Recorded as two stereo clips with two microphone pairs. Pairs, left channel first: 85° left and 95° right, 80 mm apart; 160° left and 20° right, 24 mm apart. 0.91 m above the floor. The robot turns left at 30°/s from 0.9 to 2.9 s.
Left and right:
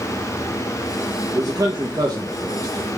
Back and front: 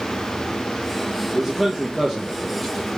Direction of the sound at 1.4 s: 85° right.